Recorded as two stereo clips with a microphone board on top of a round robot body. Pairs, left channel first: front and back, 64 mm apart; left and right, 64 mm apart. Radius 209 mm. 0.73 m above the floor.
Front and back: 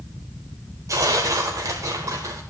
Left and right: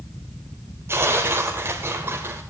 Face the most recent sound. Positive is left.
turn(degrees=-140)